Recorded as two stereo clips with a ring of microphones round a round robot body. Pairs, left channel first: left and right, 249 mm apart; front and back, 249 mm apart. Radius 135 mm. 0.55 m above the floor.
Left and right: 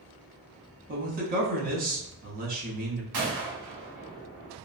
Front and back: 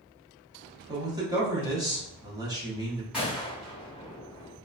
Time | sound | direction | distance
0.9 | a man speaking | 110° right | 0.9 m
3.1 | a gunshot | 95° right | 1.3 m